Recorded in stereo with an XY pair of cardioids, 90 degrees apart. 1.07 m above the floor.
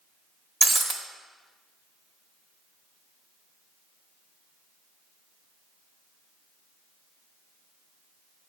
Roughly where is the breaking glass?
Ahead right.